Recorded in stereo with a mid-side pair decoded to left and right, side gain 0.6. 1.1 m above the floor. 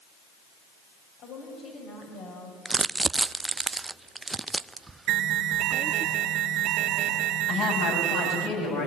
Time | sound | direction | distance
1.2 | a woman speaking | 65° left | 5.5 m
2.6 | crumpling | 20° right | 0.5 m
5.1 | an alarm | 60° right | 2.5 m
7.5 | a woman speaking | 60° left | 8.5 m